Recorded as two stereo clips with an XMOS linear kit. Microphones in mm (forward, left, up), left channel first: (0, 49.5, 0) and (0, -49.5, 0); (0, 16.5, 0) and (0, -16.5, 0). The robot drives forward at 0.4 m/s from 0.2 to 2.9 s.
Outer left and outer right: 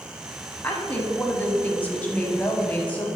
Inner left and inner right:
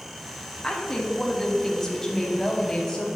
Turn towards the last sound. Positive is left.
turn(degrees=15)  # may be behind; listen again after turning